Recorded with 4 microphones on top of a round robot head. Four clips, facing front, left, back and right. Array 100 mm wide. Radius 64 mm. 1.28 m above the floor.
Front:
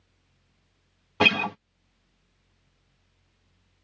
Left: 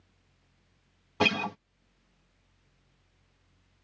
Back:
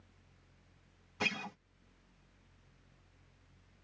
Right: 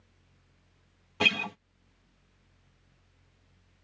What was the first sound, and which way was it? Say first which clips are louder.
A guitar: left 3 dB, front 15 dB; 20° left.